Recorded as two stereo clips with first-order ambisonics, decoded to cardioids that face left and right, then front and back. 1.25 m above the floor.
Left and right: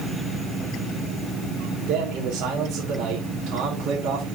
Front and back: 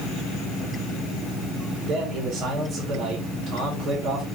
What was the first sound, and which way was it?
A man speaking, 130° right.